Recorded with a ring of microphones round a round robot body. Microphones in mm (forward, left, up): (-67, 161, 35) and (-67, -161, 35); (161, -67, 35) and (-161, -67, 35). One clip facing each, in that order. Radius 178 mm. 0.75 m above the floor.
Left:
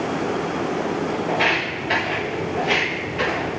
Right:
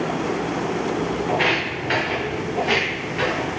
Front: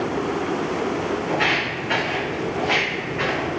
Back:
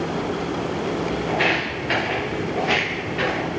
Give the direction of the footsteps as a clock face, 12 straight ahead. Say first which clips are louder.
Right 1 dB, back 1 dB; 5 o'clock.